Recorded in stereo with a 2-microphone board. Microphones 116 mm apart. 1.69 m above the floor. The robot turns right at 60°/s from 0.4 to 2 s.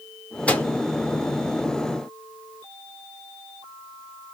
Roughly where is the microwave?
Centre.